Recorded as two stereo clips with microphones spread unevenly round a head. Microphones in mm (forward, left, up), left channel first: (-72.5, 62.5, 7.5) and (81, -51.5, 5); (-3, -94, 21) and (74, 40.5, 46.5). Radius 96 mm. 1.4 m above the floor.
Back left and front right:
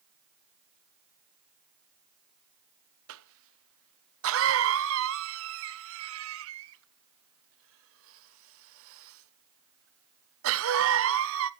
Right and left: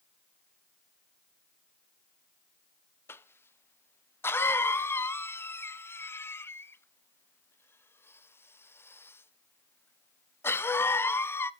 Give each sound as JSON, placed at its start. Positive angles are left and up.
{"t": 3.1, "sound": "a cough", "azimuth_deg": -45, "distance_m": 1.0}